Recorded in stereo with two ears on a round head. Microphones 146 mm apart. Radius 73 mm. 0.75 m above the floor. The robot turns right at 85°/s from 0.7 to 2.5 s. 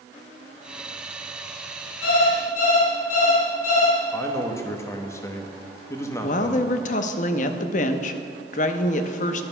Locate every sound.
2.0 s an alarm clock: 90° left, 3 m; by 4.0 s 130° left, 3 m
4.1 s a man speaking: 15° left (ahead or behind), 0.8 m
6.2 s a woman speaking: 45° left (ahead or behind), 0.6 m